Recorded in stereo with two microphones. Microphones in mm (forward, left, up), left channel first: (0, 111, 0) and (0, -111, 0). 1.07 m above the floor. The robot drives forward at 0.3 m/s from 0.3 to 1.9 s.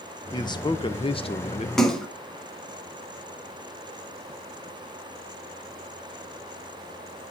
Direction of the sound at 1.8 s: Centre (ahead or behind).